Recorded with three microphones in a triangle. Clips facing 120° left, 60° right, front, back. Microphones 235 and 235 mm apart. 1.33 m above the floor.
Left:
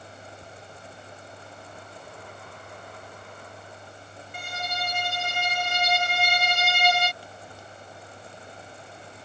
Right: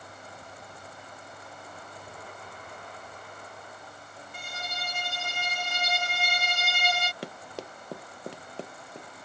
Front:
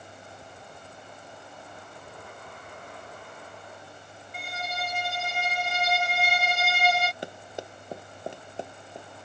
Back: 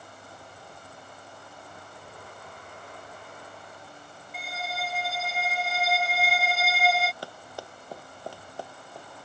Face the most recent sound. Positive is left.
turn(degrees=-70)